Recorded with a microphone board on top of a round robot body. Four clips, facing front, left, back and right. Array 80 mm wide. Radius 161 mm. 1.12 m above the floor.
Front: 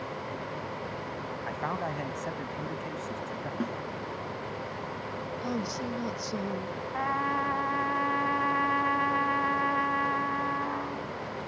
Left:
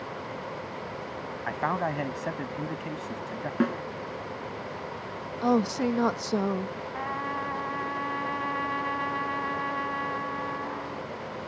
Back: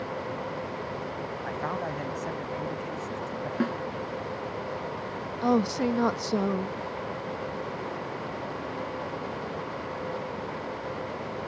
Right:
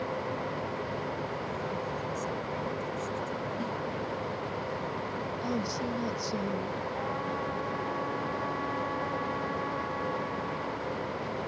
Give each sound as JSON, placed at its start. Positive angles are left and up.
{"t": 1.5, "sound": "a man speaking", "azimuth_deg": 90}
{"t": 3.6, "sound": "a snare drum", "azimuth_deg": 110}
{"t": 5.4, "sound": "a woman speaking", "azimuth_deg": 130}
{"t": 6.9, "sound": "a trumpet", "azimuth_deg": 15}